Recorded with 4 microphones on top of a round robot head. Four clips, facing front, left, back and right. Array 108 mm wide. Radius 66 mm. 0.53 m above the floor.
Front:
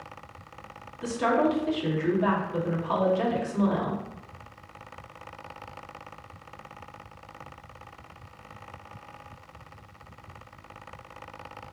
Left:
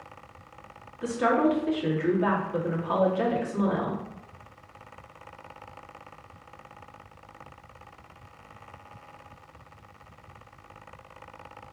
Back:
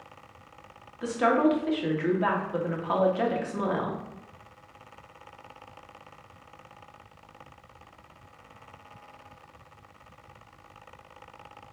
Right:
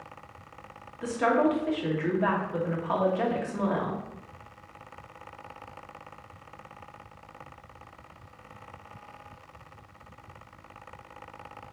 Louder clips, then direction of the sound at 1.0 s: Left 1 dB, back 1 dB; 155° right.